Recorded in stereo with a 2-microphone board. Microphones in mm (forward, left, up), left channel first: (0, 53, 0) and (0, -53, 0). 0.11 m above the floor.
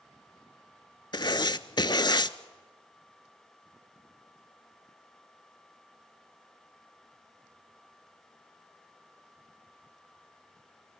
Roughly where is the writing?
Left.